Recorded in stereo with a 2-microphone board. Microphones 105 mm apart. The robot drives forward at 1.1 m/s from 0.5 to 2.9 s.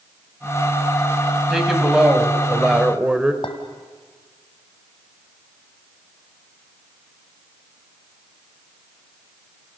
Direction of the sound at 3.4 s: 55° left (ahead or behind).